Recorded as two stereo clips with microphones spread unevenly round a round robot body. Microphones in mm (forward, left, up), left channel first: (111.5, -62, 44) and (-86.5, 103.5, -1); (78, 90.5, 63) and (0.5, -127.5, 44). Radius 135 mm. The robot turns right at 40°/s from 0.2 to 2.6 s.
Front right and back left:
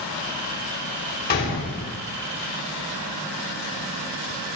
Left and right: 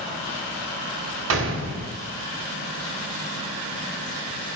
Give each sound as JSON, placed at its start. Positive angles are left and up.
{"t": 1.3, "sound": "a gunshot", "azimuth_deg": -100, "distance_m": 3.0}